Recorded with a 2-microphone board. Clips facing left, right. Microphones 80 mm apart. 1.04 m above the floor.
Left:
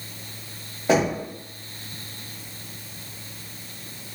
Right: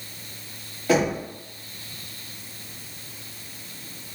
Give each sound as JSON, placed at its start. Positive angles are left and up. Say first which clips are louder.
{"t": 0.9, "sound": "knocking", "louder": "left 1 dB", "side_deg": 25, "distance_m": 1.4}